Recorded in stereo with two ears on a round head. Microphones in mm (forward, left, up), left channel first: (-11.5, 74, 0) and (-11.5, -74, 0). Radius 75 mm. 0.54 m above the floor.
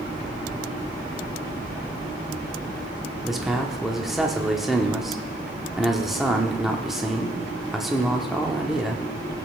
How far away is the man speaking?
About 0.9 m.